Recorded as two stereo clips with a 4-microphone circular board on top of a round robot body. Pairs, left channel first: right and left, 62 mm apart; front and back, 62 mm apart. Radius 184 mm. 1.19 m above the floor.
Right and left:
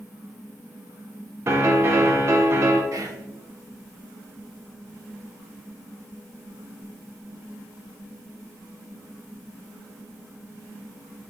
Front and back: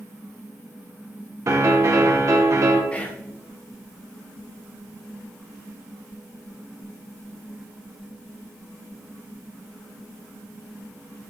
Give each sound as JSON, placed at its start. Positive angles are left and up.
{"t": 1.5, "sound": "a piano", "azimuth_deg": 135, "distance_m": 0.9}
{"t": 2.9, "sound": "whispering", "azimuth_deg": 70, "distance_m": 1.3}